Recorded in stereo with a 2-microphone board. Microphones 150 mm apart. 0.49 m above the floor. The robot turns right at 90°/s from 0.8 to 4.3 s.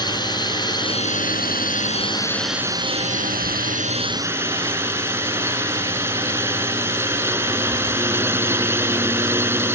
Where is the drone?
30° left; by 9.8 s 15° right.